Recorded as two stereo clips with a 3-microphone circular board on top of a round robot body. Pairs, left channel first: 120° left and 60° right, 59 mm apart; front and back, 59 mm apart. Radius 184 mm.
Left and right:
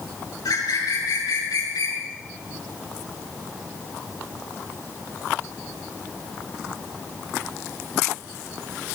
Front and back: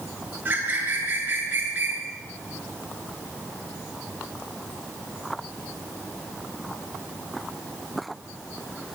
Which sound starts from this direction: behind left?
A bird, at 0.5 s.